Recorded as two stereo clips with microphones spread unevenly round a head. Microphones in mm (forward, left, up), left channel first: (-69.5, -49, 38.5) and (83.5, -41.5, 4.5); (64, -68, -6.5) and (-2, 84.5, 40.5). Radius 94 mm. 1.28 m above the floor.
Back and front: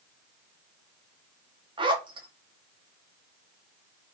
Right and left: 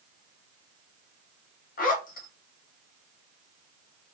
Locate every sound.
1.8 s a zipper: 50° right, 1.0 m